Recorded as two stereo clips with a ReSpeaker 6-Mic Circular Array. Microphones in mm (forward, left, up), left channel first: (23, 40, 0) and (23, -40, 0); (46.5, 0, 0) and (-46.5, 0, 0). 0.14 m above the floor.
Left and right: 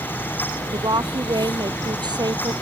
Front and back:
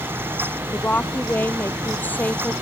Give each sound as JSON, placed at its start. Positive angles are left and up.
{"t": 0.7, "sound": "a woman speaking", "azimuth_deg": -70}